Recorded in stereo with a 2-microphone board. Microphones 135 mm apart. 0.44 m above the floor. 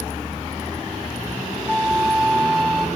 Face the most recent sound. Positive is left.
turn(degrees=5)  # may be behind; listen again after turning